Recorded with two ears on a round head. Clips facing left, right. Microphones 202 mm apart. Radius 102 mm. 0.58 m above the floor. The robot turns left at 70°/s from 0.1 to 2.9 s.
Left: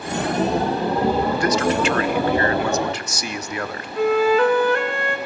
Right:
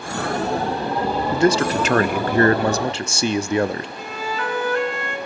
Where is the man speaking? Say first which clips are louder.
Right 2 dB; 25° right, 0.7 m; by 3.9 s 140° right, 0.7 m.